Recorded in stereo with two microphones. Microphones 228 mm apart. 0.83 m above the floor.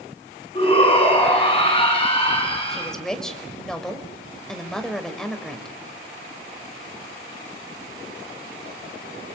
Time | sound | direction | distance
0.6 | a shout | 25° left (ahead or behind) | 9 m
2.7 | a woman speaking | centre (ahead or behind) | 4 m